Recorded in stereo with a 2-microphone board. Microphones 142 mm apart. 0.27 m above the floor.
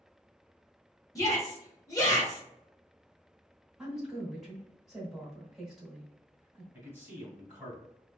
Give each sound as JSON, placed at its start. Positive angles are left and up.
{"t": 1.1, "sound": "a shout", "side_deg": 25, "distance_m": 1.4}
{"t": 3.8, "sound": "a woman speaking", "side_deg": -5, "distance_m": 1.4}
{"t": 6.7, "sound": "a man speaking", "side_deg": -20, "distance_m": 1.8}